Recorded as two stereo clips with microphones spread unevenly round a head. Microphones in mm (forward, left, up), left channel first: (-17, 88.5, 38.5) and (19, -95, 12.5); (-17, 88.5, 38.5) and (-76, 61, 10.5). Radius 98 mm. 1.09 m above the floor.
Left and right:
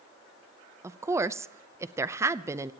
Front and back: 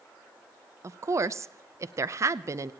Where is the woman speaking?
150° right, 0.6 m.